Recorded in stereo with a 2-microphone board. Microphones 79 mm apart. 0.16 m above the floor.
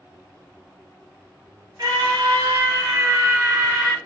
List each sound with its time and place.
1.8 s a scream: 65° right (ahead or behind), 2.5 m; by 4.0 s 15° right (ahead or behind), 1.5 m